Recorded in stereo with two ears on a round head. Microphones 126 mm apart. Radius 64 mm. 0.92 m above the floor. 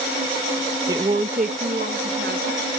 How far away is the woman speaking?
About 0.5 m.